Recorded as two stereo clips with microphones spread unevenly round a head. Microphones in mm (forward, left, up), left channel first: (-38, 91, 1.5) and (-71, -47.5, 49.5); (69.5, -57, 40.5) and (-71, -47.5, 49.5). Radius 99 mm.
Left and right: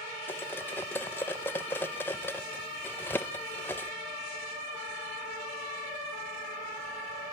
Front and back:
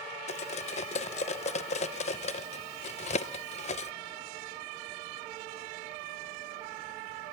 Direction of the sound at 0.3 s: 20° right.